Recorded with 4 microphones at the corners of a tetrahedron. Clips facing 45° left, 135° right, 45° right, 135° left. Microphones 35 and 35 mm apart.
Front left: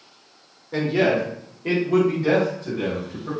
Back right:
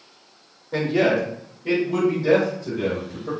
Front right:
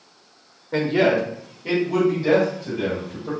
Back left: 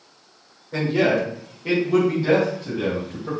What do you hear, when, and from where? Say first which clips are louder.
0.7 s a man speaking: even, front right 1 dB; 45° right, 1.0 m; by 3.3 s 70° left, 3 m